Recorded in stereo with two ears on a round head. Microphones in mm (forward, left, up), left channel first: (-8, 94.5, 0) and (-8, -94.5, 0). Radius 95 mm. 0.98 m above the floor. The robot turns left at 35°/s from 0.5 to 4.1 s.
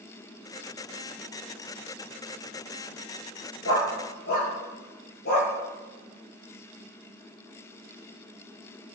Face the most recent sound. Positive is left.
turn(degrees=45)  # may be behind; listen again after turning